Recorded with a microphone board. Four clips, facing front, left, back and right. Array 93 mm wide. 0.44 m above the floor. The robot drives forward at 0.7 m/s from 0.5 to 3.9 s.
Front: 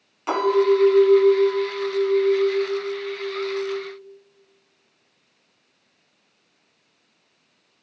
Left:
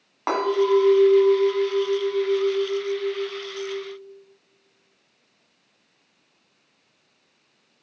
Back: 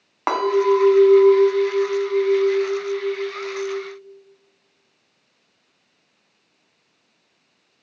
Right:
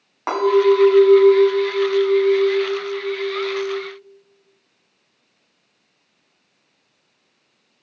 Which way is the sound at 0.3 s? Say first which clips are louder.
Right 5 dB, back 1 dB; 175° right.